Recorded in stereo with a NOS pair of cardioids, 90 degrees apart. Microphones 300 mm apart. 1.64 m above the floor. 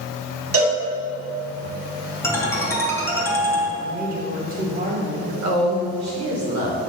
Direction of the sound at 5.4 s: 55° right.